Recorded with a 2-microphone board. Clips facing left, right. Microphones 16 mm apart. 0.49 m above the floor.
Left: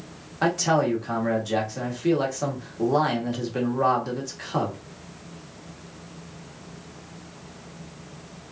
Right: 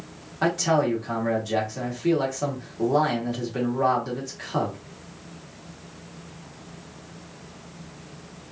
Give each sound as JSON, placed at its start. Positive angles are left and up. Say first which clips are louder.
{"t": 0.4, "sound": "a man speaking", "louder": "even", "side_deg": 10, "distance_m": 1.1}